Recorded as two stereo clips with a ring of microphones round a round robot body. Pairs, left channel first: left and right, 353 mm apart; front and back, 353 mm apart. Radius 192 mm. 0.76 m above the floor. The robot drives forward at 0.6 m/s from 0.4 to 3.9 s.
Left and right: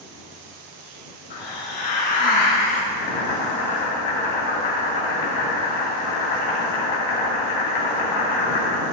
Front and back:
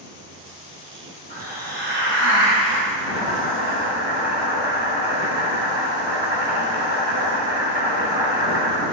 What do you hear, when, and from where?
1.3 s a hiss: 110° left, 4 m; by 2.8 s 125° left, 4.5 m
2.9 s boiling: 105° left, 3 m; by 8.8 s 115° left, 3 m